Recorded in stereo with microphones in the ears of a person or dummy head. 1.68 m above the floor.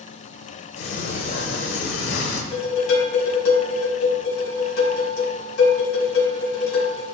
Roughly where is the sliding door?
Left.